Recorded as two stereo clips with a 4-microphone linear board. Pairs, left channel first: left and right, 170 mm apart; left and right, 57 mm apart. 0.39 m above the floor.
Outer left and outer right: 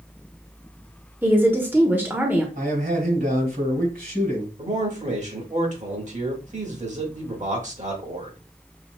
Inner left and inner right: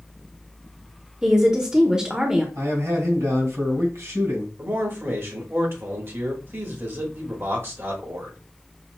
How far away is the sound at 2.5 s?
About 2.5 m.